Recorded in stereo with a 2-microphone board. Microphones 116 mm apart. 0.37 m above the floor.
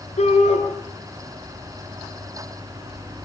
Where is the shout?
75° left (ahead or behind), 6 m.